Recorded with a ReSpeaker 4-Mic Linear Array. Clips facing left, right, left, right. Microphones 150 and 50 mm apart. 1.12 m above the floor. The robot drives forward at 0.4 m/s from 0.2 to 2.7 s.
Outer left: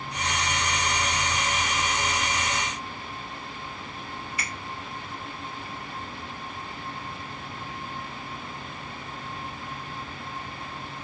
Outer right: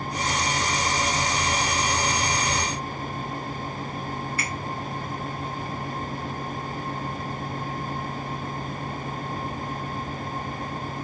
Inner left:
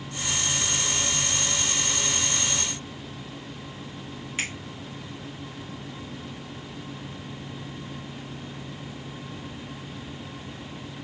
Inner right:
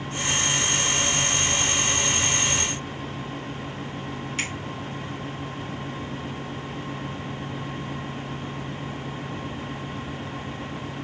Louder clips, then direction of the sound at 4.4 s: Outer right 5 dB, even; 15° left (ahead or behind).